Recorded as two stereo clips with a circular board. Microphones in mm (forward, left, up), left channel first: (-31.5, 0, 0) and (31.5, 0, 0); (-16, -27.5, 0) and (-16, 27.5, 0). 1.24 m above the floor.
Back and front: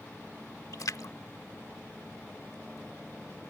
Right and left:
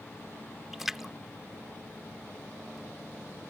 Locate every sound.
0.7 s a splash: 175° left